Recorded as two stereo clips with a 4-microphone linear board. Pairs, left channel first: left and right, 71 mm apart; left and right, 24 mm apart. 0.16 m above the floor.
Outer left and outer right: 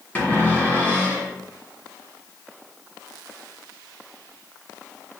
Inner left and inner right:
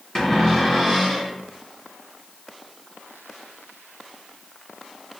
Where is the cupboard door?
25° left (ahead or behind), 1.4 m.